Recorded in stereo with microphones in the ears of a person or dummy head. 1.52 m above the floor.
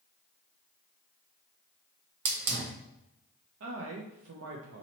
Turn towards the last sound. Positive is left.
turn(degrees=-70)  # may be behind; listen again after turning